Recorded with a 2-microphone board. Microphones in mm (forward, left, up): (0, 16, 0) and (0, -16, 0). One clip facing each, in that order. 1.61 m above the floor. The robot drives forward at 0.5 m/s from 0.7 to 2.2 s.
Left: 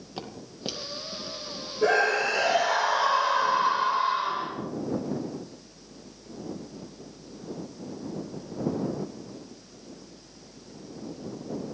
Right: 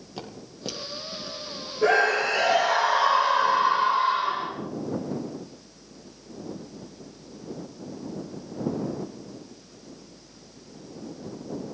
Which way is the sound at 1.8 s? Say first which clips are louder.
Right 2 dB; centre (ahead or behind).